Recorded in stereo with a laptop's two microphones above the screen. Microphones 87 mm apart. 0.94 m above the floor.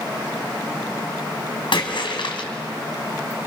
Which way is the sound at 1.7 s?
70° left (ahead or behind).